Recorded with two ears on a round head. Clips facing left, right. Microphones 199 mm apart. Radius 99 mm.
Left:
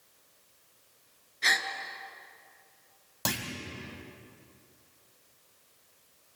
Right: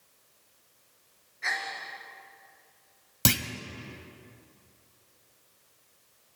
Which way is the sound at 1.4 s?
50° left (ahead or behind).